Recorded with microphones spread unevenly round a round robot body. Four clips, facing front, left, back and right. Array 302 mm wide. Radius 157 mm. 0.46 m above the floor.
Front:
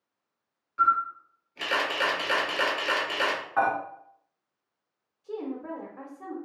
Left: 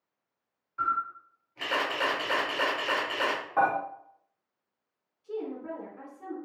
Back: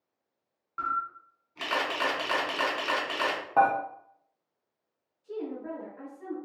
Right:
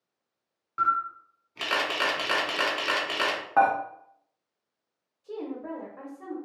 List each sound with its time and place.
0.8 s a camera shutter: 85° right, 1.2 m
3.6 s dishes clattering: 140° right, 0.8 m
5.2 s a woman speaking: 25° right, 1.0 m